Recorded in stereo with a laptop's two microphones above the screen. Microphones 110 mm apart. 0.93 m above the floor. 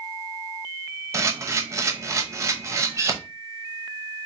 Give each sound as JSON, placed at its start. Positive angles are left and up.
{"t": 1.1, "sound": "a camera shutter", "side_deg": -25, "distance_m": 0.7}